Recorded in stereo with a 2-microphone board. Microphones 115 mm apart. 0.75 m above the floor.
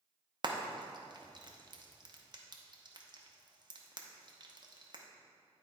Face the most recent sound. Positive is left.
turn(degrees=-45)  # may be behind; listen again after turning